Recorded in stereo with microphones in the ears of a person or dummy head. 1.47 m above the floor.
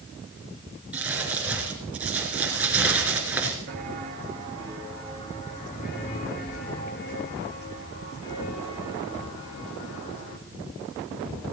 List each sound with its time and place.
0.9 s crumpling: 10° right (ahead or behind), 3.5 m
3.7 s footsteps: 25° right (ahead or behind), 1.6 m; by 10.4 s 65° left (ahead or behind), 3.5 m